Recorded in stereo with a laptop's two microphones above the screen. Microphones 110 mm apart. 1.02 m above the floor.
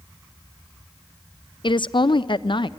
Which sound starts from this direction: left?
A woman speaking, at 1.6 s.